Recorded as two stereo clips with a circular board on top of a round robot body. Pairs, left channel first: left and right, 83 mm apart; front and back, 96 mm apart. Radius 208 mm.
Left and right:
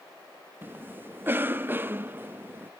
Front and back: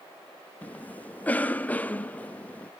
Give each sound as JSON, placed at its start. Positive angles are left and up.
{"t": 0.6, "sound": "a cough", "azimuth_deg": -55, "distance_m": 0.7}